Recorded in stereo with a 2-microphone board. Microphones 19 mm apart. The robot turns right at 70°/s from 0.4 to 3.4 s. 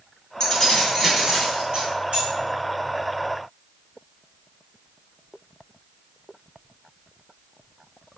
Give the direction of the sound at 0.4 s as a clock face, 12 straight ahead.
7 o'clock.